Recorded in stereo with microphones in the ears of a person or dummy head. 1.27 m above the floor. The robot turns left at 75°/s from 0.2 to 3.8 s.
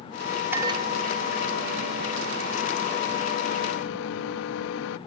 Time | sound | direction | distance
0.5 | a microwave | 10° right | ?